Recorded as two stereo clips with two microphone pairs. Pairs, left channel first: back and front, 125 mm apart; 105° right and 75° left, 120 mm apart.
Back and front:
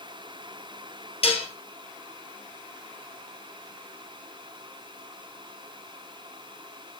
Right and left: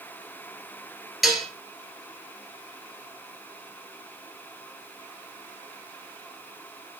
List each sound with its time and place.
1.2 s dishes clattering: 165° left, 1.5 m